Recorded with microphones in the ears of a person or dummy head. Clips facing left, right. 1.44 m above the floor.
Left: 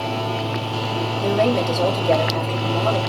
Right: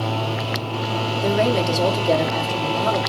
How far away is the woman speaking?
About 1.2 m.